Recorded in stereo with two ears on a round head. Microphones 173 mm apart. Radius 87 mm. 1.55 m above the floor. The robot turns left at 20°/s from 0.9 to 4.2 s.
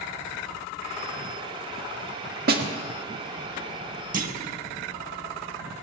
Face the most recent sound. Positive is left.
turn(degrees=-45)  # may be behind; listen again after turning